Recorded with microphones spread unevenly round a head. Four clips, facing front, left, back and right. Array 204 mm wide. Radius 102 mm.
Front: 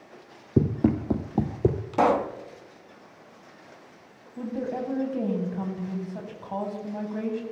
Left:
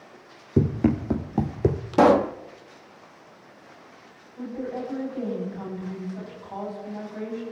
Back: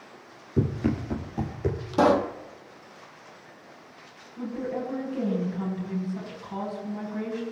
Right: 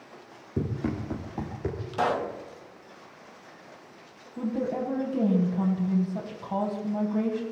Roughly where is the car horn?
No car horn in this recording.